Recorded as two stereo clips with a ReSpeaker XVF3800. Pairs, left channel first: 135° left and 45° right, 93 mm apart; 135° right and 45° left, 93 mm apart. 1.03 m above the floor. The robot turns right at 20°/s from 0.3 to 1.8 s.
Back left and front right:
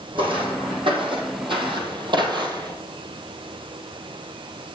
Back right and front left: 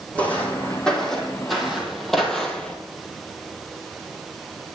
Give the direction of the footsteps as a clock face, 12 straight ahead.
2 o'clock.